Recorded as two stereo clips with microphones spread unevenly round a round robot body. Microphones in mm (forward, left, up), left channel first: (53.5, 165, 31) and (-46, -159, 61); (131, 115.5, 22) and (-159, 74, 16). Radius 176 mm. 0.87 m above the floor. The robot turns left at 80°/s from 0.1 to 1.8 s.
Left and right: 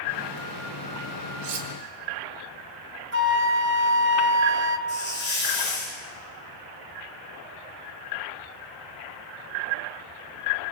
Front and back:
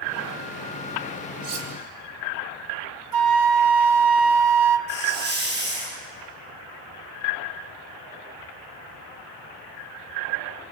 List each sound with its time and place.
1.4 s cutlery clinking: 140° right, 3.5 m; by 1.7 s 165° right, 3.5 m
3.1 s a flute: 165° right, 1.7 m
4.9 s a hiss: 135° left, 9 m